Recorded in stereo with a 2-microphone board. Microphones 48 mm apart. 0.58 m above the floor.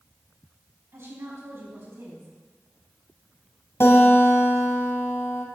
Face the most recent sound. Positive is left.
turn(degrees=65)  # may be behind; listen again after turning